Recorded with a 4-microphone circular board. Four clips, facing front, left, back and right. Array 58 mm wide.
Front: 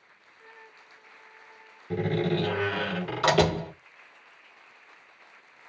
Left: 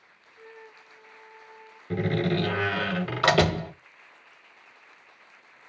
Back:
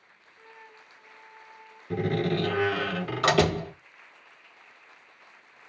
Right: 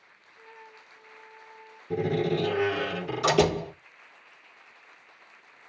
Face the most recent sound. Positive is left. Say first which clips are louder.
# even, even
turn(degrees=90)